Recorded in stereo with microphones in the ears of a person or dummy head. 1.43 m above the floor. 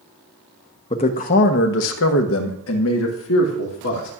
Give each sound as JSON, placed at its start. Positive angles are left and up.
{"t": 0.9, "sound": "a man speaking", "side_deg": 30, "distance_m": 0.8}